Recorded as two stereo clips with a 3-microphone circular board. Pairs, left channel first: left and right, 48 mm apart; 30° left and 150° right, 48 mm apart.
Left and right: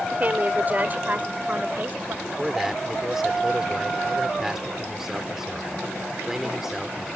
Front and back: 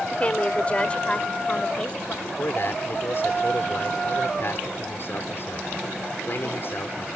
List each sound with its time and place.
0.1 s a woman speaking: 35° right; by 2.1 s 40° right
2.2 s a man speaking: 10° right